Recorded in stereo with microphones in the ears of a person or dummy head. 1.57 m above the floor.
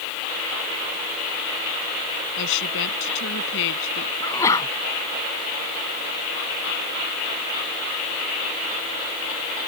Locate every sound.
2.4 s a woman speaking: 70° left (ahead or behind)
4.2 s a sneeze: 10° left (ahead or behind)